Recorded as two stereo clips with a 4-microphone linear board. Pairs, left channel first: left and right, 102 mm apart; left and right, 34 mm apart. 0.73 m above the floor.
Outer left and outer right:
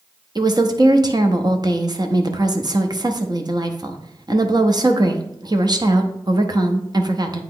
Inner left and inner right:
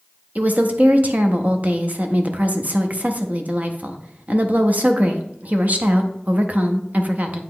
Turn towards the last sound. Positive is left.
turn(degrees=-45)  # may be behind; listen again after turning